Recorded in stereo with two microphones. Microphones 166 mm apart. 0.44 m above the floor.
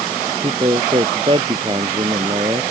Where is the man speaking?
30° right (ahead or behind).